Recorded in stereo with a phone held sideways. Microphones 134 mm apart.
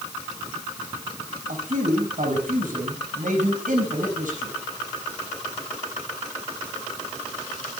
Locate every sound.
1.5 s a man speaking: 80° right, 5.5 m